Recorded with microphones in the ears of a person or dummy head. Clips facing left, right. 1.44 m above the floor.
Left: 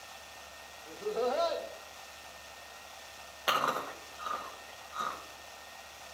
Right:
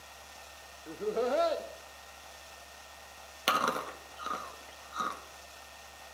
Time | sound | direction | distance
0.9 | laughter | 40° right (ahead or behind) | 0.5 m
3.5 | chewing | 40° right (ahead or behind) | 1.2 m